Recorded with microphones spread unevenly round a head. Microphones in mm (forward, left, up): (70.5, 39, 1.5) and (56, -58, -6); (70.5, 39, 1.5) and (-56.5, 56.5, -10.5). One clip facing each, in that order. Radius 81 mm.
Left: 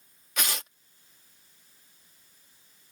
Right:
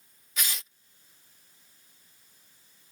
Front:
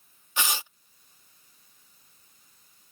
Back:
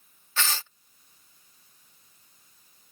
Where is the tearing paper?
65° left.